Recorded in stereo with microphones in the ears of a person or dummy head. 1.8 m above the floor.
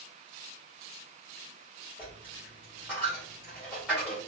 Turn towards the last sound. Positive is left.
turn(degrees=0)  # may be behind; listen again after turning